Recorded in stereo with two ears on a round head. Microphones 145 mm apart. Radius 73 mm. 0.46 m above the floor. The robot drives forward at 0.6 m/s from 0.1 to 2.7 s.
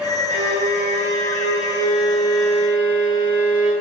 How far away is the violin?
About 7.5 m.